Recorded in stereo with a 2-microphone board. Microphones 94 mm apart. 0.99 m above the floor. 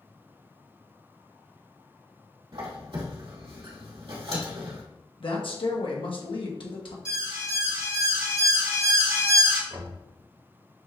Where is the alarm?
60° right (ahead or behind), 2.5 m.